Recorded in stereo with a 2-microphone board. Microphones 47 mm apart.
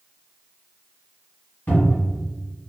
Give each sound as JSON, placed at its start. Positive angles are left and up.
{"t": 1.7, "sound": "a cupboard door", "side_deg": 35, "distance_m": 1.9}